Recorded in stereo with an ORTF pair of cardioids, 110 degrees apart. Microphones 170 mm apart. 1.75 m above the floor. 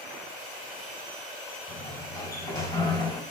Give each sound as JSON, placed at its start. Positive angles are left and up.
{"t": 1.7, "sound": "a sliding door", "azimuth_deg": 20, "distance_m": 4.5}